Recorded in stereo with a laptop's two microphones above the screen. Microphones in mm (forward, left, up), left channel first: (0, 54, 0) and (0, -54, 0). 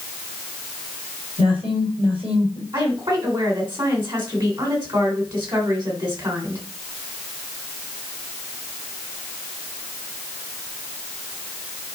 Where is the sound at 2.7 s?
45° right (ahead or behind), 3.5 m.